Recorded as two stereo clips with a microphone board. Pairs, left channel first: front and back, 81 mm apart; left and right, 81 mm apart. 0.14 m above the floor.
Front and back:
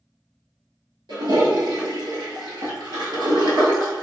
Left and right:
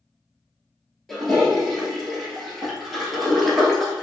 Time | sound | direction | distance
1.1 | a toilet flushing | 175° left | 1.2 m